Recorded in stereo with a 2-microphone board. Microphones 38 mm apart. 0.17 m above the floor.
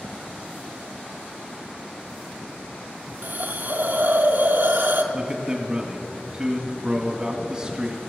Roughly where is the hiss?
Right.